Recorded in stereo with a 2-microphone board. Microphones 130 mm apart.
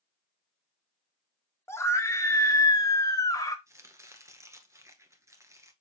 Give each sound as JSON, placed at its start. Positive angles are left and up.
{"t": 1.7, "sound": "a scream", "side_deg": 20, "distance_m": 1.4}
{"t": 3.7, "sound": "chopping", "side_deg": -20, "distance_m": 1.2}